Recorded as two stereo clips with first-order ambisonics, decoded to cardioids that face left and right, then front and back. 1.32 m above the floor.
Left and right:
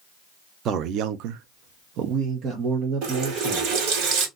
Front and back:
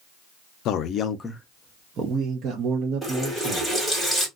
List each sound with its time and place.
0.7 s a man speaking: 40° right, 0.6 m; by 3.8 s 155° right, 1.5 m
3.0 s a running tap: 100° right, 1.4 m